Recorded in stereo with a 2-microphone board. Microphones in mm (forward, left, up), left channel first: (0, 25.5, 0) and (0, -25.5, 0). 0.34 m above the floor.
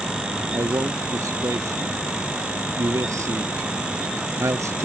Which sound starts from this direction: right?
A man speaking, at 0.5 s.